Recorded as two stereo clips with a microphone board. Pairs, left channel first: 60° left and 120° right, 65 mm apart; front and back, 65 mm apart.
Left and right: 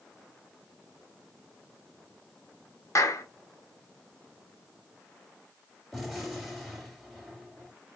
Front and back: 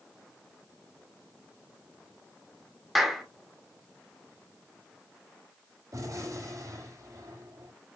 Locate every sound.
3.0 s a clap: 90° left, 1.4 m
5.9 s a gunshot: 150° left, 3.5 m